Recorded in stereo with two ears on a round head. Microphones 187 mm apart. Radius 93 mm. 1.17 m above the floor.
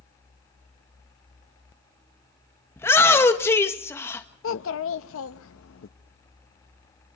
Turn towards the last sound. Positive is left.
turn(degrees=65)  # may be behind; listen again after turning